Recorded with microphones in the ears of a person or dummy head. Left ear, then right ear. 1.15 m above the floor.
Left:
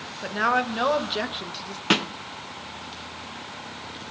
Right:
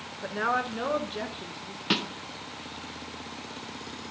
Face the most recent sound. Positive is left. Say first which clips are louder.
# left 5 dB
turn(degrees=25)  # may be behind; listen again after turning